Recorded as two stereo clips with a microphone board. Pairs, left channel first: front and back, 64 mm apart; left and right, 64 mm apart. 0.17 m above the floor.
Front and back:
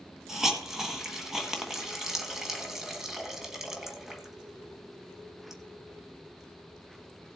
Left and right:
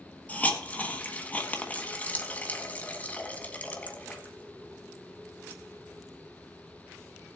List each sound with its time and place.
0.3 s a hiss: 105° left, 1.5 m